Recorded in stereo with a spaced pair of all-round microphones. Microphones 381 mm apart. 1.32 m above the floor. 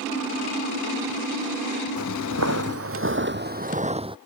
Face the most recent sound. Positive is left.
turn(degrees=-15)  # may be behind; listen again after turning